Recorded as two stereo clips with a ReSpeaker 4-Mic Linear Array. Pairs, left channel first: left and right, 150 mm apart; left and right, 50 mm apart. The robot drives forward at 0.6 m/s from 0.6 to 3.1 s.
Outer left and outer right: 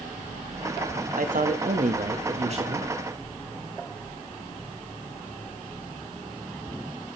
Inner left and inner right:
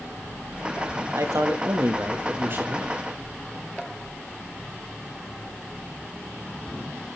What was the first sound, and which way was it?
A man speaking, 70° right (ahead or behind).